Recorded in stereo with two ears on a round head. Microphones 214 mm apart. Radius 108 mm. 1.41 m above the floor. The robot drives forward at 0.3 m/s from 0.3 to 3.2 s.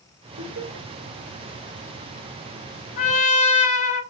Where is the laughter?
70° right (ahead or behind), 1.5 m; by 0.9 s 65° right (ahead or behind), 1.6 m.